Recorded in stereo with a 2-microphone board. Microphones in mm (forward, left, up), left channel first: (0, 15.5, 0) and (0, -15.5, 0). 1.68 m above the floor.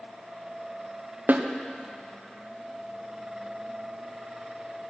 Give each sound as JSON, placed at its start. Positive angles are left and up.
{"t": 1.3, "sound": "a snare drum", "side_deg": -65, "distance_m": 0.7}